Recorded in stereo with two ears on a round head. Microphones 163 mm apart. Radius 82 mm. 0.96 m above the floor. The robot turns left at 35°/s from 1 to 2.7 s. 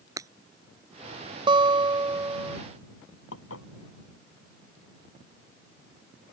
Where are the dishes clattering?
90° left.